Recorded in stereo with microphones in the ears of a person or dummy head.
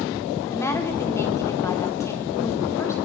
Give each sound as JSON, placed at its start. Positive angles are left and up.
{"t": 0.5, "sound": "a woman speaking", "side_deg": 15, "distance_m": 4.0}